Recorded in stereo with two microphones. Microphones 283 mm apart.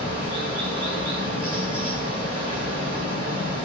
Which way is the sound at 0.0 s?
15° right (ahead or behind).